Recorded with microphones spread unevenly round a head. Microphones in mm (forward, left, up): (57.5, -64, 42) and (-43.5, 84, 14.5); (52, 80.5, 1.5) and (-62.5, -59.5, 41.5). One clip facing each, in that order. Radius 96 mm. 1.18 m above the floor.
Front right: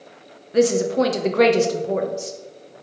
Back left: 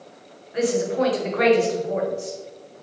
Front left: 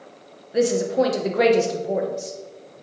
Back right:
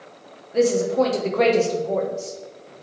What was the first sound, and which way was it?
A woman speaking, 20° right.